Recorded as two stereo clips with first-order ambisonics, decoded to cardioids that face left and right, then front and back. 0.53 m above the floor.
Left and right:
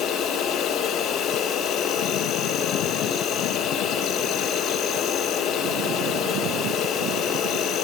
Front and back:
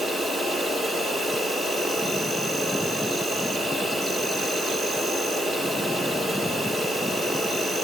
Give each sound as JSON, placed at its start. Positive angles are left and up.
{"t": 0.0, "sound": "an insect", "azimuth_deg": 110, "distance_m": 1.7}